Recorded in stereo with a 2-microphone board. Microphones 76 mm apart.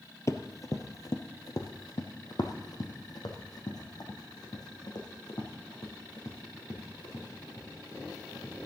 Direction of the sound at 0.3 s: 40° left (ahead or behind).